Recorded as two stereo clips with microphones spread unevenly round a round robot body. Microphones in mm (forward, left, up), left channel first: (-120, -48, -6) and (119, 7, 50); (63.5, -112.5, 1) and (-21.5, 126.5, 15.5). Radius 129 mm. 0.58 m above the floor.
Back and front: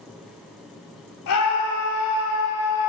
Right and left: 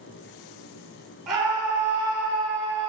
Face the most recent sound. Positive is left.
turn(degrees=-160)